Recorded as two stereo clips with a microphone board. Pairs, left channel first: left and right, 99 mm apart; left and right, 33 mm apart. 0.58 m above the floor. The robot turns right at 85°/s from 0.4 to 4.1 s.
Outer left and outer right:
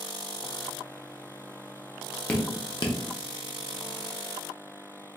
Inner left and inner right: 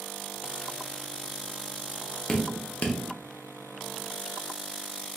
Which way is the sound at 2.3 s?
10° left (ahead or behind).